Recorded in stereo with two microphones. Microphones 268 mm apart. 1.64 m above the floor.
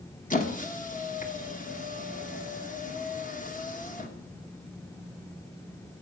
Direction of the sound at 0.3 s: 30° left (ahead or behind).